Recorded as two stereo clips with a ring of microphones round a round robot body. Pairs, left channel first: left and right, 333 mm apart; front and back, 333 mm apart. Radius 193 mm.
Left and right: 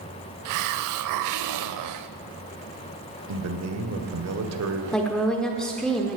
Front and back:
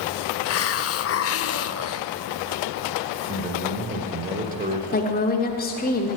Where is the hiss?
50° right, 0.6 m.